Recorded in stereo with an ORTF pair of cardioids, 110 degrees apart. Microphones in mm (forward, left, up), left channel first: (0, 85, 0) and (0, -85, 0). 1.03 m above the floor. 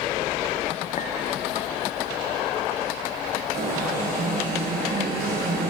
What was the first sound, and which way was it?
A clink, 45° left.